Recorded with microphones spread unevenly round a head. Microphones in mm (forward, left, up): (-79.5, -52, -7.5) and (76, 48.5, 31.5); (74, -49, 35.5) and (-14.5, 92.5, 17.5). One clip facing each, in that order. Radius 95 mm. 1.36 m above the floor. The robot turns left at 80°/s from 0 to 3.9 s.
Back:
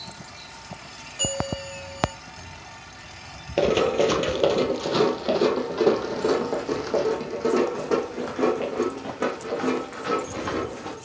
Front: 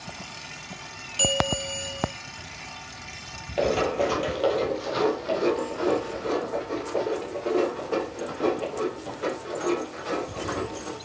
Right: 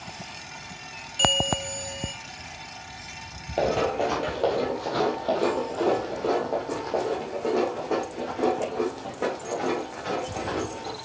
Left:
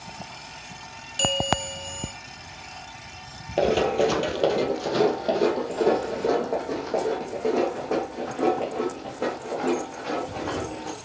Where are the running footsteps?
170° right, 1.8 m; by 10.9 s 145° right, 6.5 m.